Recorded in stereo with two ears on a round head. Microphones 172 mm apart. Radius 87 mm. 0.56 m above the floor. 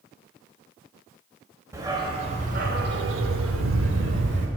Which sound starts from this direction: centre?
A dog barking, at 1.7 s.